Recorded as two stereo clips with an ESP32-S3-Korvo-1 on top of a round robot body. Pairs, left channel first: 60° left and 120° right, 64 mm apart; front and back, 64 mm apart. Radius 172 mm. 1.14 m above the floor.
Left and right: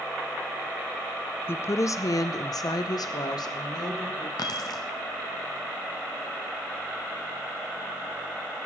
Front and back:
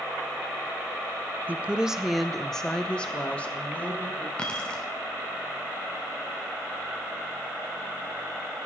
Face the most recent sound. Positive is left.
turn(degrees=75)